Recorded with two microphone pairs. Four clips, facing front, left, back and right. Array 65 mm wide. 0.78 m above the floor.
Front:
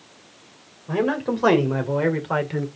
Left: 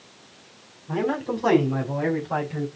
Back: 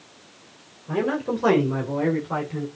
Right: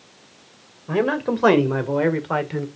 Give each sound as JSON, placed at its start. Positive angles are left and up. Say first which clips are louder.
{"t": 0.9, "sound": "a man speaking", "louder": "right 4 dB, front 2 dB", "azimuth_deg": -75, "distance_m": 3.0}